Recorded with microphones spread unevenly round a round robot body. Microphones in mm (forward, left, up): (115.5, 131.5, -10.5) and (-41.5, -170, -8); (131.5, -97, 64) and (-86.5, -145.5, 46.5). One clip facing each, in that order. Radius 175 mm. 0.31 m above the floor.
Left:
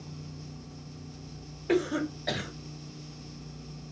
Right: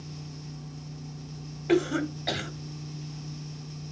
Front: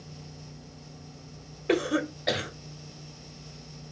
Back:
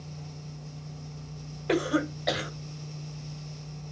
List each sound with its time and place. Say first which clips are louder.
1.7 s a cough: right 3 dB, even; 50° right, 1.3 m